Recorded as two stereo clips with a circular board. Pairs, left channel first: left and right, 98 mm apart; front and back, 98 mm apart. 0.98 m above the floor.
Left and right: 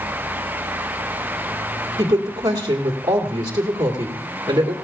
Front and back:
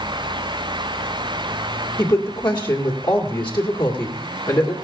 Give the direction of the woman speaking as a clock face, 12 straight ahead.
1 o'clock.